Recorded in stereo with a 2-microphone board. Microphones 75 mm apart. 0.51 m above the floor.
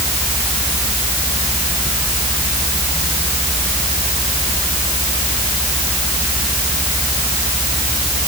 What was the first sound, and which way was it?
Only background noise.